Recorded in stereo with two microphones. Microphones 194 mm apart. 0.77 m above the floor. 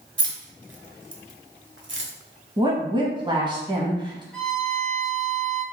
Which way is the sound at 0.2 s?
80° right.